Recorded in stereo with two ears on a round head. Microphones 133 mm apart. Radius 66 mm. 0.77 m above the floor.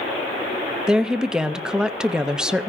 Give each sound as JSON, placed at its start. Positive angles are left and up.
{"t": 0.9, "sound": "a woman speaking", "side_deg": -5, "distance_m": 0.5}